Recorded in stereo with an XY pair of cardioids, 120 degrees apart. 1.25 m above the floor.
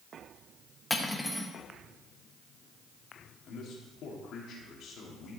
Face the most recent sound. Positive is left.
turn(degrees=65)